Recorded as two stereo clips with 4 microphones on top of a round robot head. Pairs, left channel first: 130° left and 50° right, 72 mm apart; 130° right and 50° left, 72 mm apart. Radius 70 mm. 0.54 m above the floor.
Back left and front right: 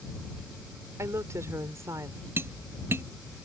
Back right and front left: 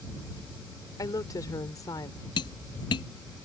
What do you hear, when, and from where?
1.0 s a woman speaking: 95° right
2.4 s tapping: 110° right